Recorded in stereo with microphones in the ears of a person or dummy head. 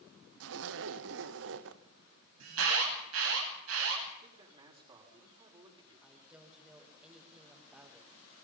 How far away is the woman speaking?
About 5 m.